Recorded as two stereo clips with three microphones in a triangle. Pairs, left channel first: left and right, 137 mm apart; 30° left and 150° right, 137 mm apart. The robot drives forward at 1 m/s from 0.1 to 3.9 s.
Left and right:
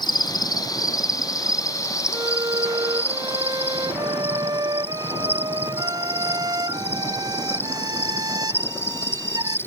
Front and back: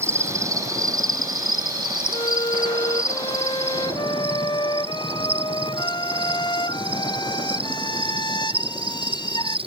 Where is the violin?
25° right; by 9.6 s 30° right.